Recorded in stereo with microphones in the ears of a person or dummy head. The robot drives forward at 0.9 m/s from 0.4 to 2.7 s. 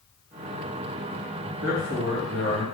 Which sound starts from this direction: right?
A man speaking, at 1.6 s.